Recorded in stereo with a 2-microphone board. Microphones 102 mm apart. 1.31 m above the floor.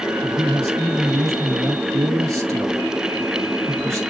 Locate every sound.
0.2 s a man speaking: 25° right (ahead or behind), 1.6 m